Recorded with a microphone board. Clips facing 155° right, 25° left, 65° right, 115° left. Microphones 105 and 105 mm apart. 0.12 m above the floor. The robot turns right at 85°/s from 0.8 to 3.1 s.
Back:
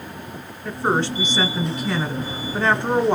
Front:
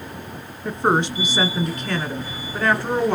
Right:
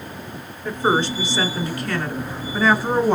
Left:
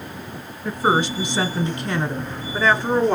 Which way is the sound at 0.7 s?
45° left.